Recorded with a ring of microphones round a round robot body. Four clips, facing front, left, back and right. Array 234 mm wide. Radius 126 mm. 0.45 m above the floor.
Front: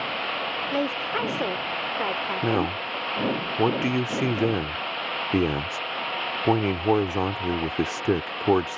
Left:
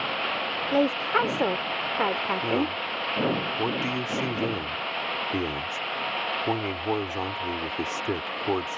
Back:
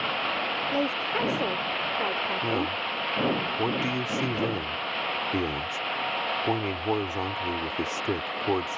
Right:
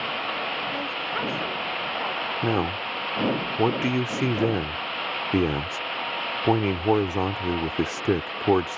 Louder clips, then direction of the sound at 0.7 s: Left 7 dB, front 2 dB; 80° left.